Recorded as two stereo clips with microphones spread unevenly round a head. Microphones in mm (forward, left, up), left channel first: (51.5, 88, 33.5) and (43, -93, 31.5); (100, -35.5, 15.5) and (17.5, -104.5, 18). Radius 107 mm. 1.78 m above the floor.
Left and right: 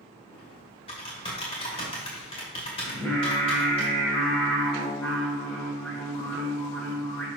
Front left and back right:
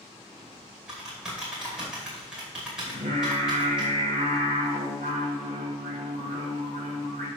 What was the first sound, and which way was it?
Typing on a keyboard, 140° left.